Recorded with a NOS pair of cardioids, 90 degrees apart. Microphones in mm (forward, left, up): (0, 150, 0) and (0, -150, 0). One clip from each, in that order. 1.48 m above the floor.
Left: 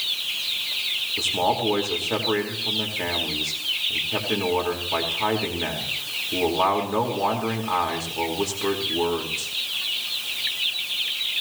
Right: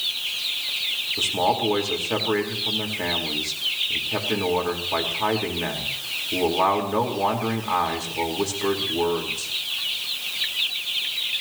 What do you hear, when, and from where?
1.2 s a man speaking: 5° right, 4.5 m